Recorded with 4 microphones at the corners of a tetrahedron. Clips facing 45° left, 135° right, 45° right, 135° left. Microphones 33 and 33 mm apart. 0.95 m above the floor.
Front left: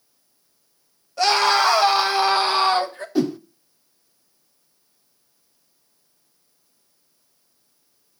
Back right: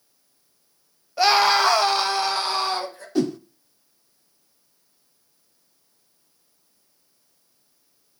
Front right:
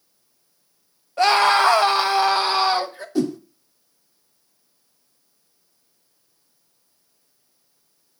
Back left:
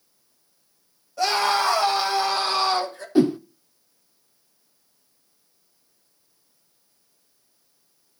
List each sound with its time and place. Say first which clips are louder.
1.2 s a scream: even, front right 6 dB; 60° right, 1.3 m; by 3.0 s 5° left, 1.5 m
3.1 s a whoosh: front left 1 dB, back left 4 dB; 115° left, 0.6 m